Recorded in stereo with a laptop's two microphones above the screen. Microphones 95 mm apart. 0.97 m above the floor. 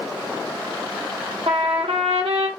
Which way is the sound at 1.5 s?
80° right.